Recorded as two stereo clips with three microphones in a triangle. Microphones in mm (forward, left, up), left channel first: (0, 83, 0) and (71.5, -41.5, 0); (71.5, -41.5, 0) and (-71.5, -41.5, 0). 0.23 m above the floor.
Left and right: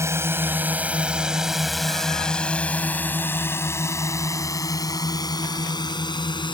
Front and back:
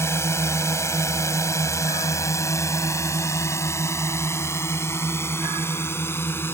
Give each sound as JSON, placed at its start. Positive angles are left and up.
{"t": 0.0, "sound": "a drone", "azimuth_deg": -30}